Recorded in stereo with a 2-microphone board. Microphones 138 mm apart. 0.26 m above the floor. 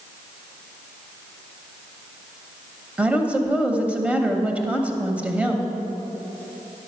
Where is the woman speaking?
10° right (ahead or behind), 0.9 m.